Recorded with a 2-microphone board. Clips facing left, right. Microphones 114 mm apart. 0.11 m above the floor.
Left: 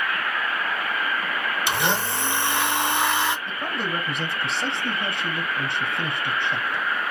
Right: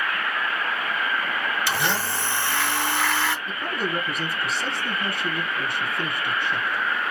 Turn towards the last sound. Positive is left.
turn(degrees=25)  # may be behind; listen again after turning